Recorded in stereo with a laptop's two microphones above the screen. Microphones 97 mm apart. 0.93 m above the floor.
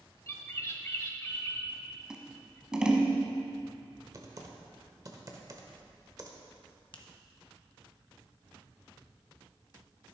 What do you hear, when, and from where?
0.3 s a bird: 30° left (ahead or behind), 1.2 m
2.1 s scissors: 10° right (ahead or behind), 0.9 m
4.1 s typing on a keyboard: 40° right (ahead or behind), 1.0 m
6.9 s a finger snap: 50° left (ahead or behind), 1.0 m